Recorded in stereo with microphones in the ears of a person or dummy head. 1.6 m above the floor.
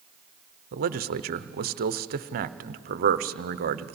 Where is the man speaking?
45° right (ahead or behind), 0.6 m.